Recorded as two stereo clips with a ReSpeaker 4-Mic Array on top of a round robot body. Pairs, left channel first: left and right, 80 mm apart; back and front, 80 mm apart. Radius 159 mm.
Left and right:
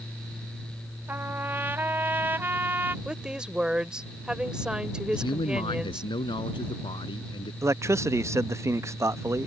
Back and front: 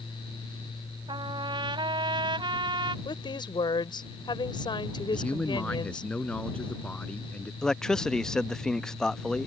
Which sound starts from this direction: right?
A man speaking, at 7.6 s.